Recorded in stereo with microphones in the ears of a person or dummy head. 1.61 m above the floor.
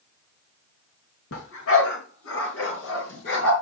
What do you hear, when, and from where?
1.3 s a dog barking: 70° left (ahead or behind), 5.5 m; by 3.5 s 80° left, 6.5 m